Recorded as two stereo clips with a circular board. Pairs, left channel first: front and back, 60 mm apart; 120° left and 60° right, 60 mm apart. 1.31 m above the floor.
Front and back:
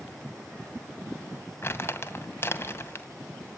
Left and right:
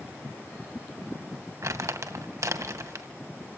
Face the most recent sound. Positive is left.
turn(degrees=-45)